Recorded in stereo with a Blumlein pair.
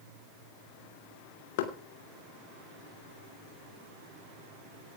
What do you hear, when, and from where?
1.6 s knocking: 50° left, 3 m